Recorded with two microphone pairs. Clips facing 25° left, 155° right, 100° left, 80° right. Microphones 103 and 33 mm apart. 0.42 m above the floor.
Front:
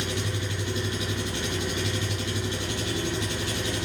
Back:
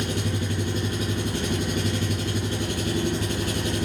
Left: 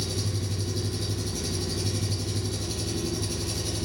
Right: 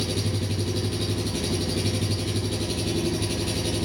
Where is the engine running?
110° right, 4 m.